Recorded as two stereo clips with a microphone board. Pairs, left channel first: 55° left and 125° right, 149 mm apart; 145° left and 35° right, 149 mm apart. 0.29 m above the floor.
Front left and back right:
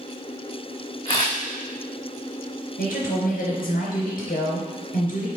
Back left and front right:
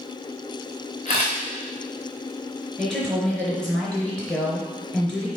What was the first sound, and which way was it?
A camera shutter, 105° left.